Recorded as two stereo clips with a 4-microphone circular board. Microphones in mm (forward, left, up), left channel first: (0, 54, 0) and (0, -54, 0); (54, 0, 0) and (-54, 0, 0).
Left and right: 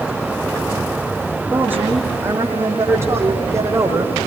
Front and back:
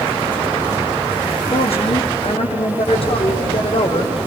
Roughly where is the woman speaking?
Ahead.